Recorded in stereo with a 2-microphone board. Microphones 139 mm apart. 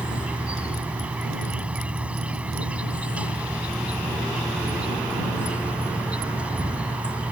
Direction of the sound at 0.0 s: 10° right (ahead or behind).